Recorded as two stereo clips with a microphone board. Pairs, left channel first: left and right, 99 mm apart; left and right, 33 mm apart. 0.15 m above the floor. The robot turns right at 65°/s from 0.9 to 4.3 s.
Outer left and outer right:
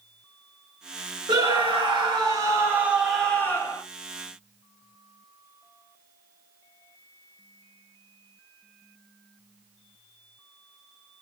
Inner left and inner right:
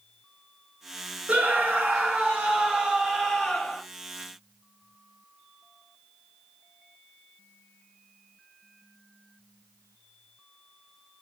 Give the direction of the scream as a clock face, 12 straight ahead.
4 o'clock.